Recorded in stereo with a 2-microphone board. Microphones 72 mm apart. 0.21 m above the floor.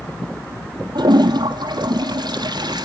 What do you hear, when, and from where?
0.9 s a toilet flushing: 80° right, 1.1 m